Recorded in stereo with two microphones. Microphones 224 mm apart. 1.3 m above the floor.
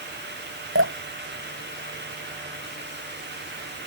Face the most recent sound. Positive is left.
turn(degrees=-65)  # may be behind; listen again after turning